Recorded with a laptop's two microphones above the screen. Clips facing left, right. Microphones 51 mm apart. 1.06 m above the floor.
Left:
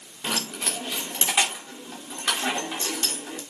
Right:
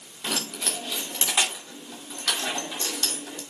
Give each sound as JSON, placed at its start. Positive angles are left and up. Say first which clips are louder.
{"t": 0.2, "sound": "keys jangling", "louder": "left 1 dB", "side_deg": 25, "distance_m": 2.5}